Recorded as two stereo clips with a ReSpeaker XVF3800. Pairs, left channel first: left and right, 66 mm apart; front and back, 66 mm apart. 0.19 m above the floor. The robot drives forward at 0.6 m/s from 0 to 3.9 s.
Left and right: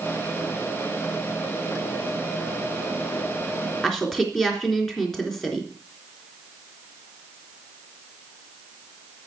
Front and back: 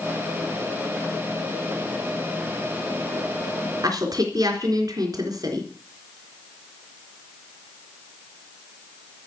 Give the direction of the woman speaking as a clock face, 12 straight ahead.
6 o'clock.